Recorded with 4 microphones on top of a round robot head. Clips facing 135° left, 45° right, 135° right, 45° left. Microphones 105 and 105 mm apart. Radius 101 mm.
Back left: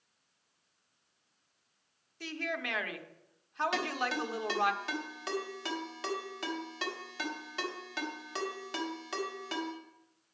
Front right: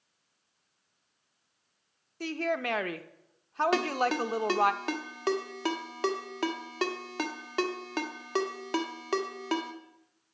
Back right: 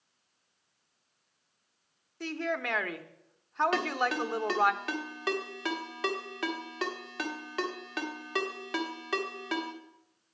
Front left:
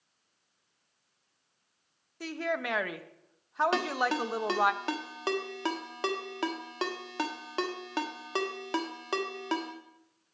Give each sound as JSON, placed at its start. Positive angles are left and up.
{"t": 2.2, "sound": "a woman speaking", "azimuth_deg": -35, "distance_m": 0.8}
{"t": 3.7, "sound": "a ringtone", "azimuth_deg": -15, "distance_m": 1.4}